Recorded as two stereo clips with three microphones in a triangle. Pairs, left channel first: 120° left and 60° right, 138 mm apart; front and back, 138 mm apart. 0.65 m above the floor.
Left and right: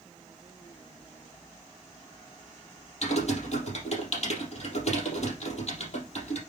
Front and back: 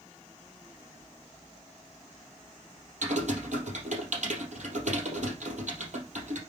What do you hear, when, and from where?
3.0 s typing on a keyboard: 155° left, 3.5 m